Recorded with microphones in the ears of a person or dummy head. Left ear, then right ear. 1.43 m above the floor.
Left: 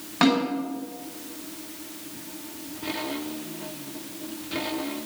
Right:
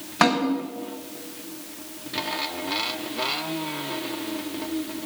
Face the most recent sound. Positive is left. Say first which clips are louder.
# right 2 dB
turn(degrees=-25)  # may be behind; listen again after turning